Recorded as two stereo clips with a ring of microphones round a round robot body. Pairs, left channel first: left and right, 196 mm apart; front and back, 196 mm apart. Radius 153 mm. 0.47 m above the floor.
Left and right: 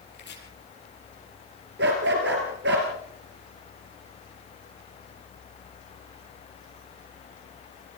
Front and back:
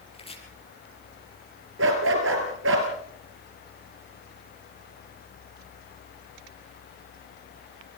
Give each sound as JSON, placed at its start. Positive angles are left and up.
{"t": 0.1, "sound": "chopping", "azimuth_deg": 60, "distance_m": 7.0}
{"t": 1.8, "sound": "a dog barking", "azimuth_deg": -140, "distance_m": 3.0}